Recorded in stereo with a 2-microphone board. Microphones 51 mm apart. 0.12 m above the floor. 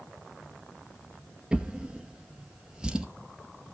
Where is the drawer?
15° right (ahead or behind), 1.4 m.